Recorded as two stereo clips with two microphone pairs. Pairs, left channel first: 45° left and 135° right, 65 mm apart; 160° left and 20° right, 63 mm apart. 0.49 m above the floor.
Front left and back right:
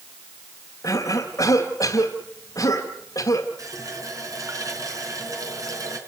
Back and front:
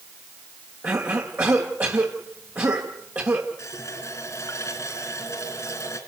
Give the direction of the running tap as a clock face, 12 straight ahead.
5 o'clock.